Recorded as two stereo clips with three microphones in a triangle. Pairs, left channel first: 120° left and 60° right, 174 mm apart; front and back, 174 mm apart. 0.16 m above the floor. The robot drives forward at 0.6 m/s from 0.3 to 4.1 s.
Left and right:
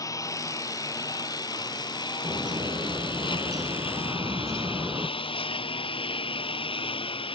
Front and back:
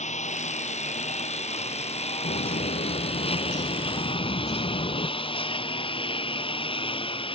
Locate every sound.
0.0 s a lawn mower: 50° left; by 7.3 s 60° left
2.2 s a bird: straight ahead